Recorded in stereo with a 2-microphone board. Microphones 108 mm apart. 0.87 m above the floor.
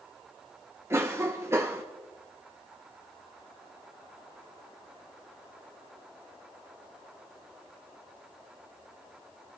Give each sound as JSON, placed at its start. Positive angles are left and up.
{"t": 0.9, "sound": "a cough", "side_deg": -25, "distance_m": 0.8}